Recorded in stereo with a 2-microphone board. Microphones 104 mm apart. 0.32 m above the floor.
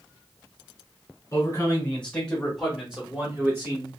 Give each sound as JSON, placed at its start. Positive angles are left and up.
{"t": 1.3, "sound": "a man speaking", "side_deg": 25, "distance_m": 1.4}